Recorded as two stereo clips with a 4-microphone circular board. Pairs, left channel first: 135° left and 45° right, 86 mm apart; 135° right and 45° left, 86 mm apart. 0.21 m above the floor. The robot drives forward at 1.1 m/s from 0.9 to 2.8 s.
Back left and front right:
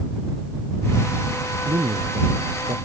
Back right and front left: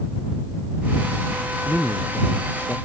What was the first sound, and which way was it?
A man speaking, 55° right.